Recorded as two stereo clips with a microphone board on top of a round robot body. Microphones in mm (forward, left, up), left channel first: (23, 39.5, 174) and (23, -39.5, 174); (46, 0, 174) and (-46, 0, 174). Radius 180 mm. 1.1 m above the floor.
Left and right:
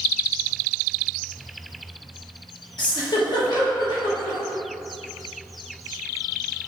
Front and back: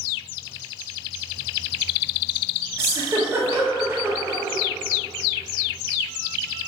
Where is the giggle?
120° left, 1.3 m.